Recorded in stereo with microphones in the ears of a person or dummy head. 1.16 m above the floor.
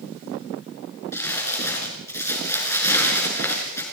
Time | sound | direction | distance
1.1 | crumpling | 15° left (ahead or behind) | 5 m